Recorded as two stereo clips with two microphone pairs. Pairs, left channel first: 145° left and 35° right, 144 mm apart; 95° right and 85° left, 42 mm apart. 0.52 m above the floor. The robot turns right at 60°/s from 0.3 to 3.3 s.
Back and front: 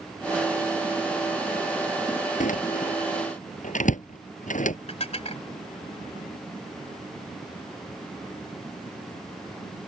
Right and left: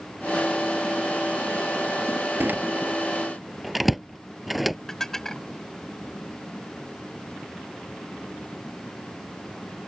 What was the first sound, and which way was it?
A door slam, 120° left.